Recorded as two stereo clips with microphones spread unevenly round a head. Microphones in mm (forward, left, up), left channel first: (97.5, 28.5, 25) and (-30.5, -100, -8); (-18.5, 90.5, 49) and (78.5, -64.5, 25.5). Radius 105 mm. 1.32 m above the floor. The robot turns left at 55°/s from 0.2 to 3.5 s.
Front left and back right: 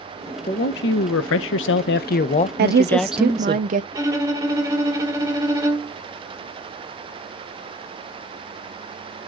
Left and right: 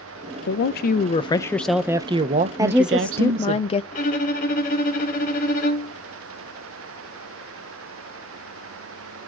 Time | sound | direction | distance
0.5 | a man speaking | 100° left | 0.7 m
2.6 | a woman speaking | 125° right | 0.6 m
3.9 | a violin | 145° left | 1.1 m